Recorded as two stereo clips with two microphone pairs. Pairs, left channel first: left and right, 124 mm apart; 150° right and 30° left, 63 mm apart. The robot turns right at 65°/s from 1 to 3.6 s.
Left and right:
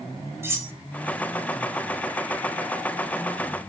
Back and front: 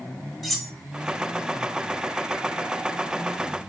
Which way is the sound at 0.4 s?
65° right.